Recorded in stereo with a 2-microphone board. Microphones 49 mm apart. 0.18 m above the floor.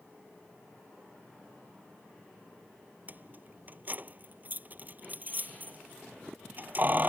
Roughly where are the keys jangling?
Right.